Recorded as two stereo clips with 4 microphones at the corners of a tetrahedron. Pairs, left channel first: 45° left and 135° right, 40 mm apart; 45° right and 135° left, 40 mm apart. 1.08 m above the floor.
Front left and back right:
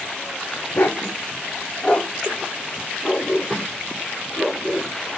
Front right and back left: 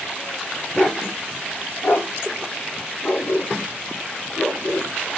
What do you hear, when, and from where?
0.7 s a dog barking: 10° left, 1.9 m; by 4.9 s 65° right, 4.5 m